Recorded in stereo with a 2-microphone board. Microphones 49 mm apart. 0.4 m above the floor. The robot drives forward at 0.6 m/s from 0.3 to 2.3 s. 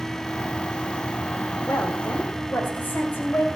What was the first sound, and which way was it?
A woman speaking, 50° left (ahead or behind).